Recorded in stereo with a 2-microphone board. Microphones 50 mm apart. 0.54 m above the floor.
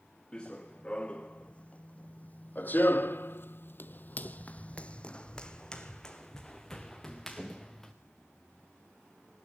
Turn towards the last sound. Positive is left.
turn(degrees=5)  # may be behind; listen again after turning